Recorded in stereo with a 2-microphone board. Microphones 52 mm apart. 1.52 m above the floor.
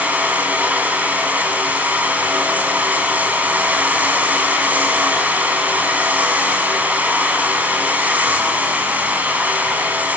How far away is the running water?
About 6.5 m.